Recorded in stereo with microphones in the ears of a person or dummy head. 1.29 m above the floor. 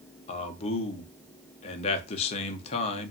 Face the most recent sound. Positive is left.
turn(degrees=30)  # may be behind; listen again after turning